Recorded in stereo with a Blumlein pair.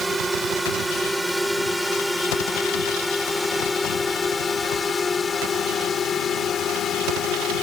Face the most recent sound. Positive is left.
turn(degrees=30)